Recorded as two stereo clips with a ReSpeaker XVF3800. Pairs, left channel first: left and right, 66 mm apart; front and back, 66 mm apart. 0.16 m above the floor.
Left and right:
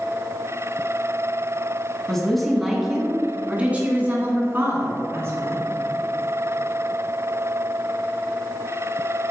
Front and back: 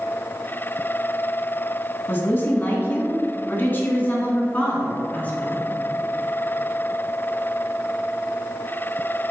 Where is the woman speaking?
10° left, 1.8 m; by 5.6 s 60° right, 2.5 m.